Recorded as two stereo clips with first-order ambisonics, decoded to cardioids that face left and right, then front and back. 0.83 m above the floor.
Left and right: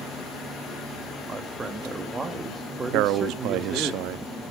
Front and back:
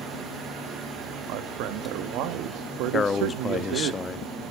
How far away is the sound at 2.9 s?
About 0.8 m.